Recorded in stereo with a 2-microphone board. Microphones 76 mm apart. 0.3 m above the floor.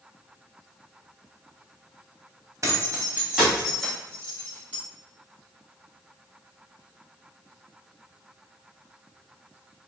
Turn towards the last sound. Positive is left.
turn(degrees=20)  # may be behind; listen again after turning